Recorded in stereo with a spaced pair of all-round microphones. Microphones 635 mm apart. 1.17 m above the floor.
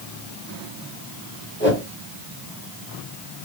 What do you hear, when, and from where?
1.6 s a whoosh: 20° left (ahead or behind), 1.4 m